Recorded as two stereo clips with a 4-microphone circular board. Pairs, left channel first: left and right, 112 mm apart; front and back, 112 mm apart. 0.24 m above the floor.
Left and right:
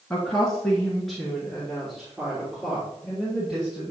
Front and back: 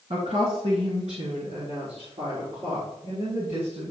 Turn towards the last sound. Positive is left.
turn(degrees=-175)